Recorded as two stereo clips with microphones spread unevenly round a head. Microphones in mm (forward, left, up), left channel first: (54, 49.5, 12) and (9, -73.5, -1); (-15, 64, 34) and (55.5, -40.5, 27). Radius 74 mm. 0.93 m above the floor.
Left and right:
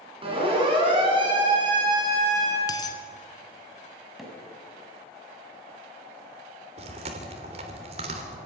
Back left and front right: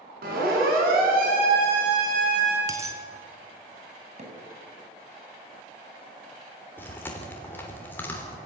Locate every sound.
0.2 s a siren: 60° right, 9.5 m; by 2.6 s 50° right, 7.5 m
2.7 s a dropped coin: 10° left, 3.5 m
4.2 s hammering: 20° right, 7 m
6.8 s chewing: 160° right, 3.5 m